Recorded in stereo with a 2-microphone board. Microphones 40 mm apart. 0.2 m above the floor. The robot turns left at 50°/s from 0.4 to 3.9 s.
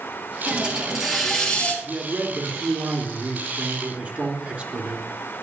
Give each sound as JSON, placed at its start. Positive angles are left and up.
{"t": 0.5, "sound": "a hiss", "azimuth_deg": -145, "distance_m": 3.0}
{"t": 1.8, "sound": "a man speaking", "azimuth_deg": -40, "distance_m": 3.0}